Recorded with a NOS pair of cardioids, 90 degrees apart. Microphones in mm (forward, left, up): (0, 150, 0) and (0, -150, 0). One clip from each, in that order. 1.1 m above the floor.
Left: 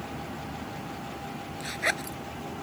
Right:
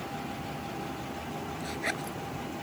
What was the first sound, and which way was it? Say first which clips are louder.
A zipper: left 6 dB; 50° left.